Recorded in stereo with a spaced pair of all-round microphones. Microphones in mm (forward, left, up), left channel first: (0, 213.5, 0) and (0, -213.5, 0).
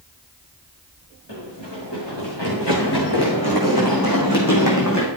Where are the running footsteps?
75° left (ahead or behind), 6 m; by 5.1 s 40° left (ahead or behind), 3 m.